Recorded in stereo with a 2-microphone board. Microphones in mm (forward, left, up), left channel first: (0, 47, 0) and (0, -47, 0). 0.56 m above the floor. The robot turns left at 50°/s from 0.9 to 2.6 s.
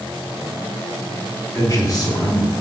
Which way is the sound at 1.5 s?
130° left.